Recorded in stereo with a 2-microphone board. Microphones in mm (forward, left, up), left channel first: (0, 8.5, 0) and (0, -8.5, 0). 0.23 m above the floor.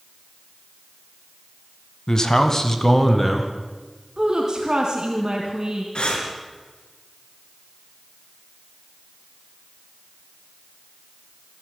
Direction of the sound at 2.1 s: 40° left (ahead or behind).